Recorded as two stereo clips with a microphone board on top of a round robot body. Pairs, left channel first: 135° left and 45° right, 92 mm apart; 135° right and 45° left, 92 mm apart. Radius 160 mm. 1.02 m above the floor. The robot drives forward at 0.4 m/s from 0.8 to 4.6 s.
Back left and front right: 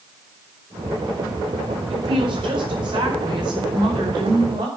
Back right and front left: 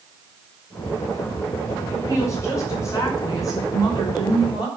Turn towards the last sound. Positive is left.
turn(degrees=-90)